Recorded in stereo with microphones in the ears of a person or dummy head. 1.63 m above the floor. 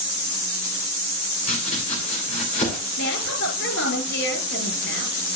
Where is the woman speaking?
65° left (ahead or behind), 5 m.